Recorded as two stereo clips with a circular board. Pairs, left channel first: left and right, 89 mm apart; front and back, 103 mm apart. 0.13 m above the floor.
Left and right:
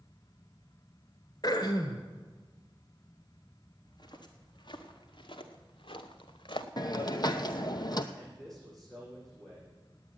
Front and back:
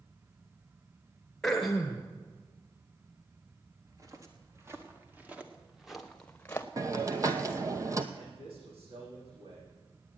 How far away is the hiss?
About 0.8 m.